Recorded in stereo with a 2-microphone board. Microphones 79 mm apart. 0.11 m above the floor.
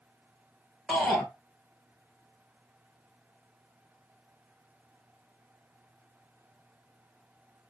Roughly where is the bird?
I don't hear a bird.